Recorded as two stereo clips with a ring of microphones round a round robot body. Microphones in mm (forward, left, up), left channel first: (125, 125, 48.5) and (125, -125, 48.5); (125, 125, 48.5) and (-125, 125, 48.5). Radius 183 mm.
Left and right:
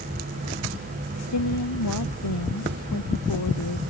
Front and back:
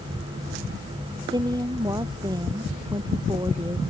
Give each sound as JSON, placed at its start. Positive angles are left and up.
{"t": 1.3, "sound": "a woman speaking", "azimuth_deg": 105}